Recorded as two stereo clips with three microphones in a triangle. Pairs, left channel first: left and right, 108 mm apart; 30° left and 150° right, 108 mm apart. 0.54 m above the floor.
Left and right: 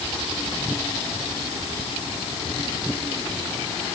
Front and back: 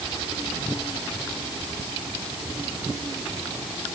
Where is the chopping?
No chopping in this recording.